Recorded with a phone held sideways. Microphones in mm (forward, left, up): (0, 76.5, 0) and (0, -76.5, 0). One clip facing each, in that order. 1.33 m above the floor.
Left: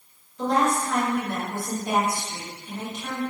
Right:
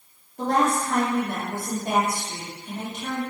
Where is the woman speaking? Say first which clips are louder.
Even; 50° right (ahead or behind), 1.7 m.